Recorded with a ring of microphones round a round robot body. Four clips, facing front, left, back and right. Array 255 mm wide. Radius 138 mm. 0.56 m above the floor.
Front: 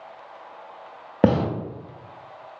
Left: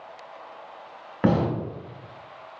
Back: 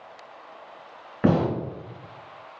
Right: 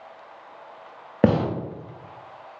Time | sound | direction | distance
1.2 | a gunshot | 40° right | 0.9 m